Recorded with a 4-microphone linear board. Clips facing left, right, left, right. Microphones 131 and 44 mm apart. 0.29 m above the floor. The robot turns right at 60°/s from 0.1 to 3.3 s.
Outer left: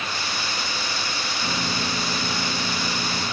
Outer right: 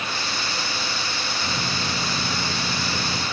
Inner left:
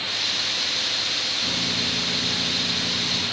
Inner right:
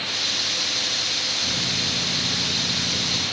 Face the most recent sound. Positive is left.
turn(degrees=-75)